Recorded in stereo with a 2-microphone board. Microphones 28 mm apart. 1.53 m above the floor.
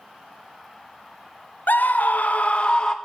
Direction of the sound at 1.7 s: 75° left (ahead or behind).